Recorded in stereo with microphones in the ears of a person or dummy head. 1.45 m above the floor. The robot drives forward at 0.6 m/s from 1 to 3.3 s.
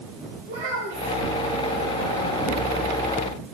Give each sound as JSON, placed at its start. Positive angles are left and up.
{"t": 0.5, "sound": "a child speaking", "side_deg": -55, "distance_m": 3.5}